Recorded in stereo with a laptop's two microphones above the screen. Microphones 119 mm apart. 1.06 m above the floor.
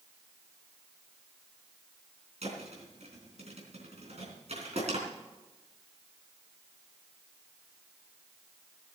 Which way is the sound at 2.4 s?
65° right (ahead or behind).